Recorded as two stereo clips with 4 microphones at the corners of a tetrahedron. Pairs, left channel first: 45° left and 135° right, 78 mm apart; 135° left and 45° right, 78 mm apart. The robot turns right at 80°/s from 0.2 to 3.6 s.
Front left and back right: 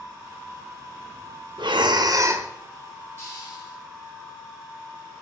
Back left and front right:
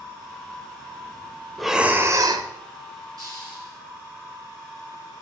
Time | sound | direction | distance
1.6 | breathing | 140° right | 0.6 m
3.2 | a hiss | 20° right | 4.5 m